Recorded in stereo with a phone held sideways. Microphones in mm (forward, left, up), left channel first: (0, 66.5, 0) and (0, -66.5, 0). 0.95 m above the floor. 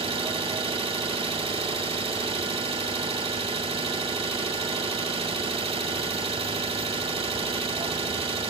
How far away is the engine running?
About 1.4 m.